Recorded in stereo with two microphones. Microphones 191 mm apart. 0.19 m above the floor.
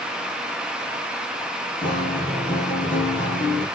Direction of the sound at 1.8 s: 45° left (ahead or behind).